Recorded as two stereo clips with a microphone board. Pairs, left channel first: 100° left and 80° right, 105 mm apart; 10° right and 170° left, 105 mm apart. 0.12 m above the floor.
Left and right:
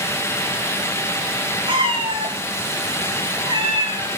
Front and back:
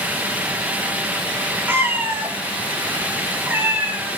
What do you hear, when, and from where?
1.7 s a cat meowing: 120° right, 7.5 m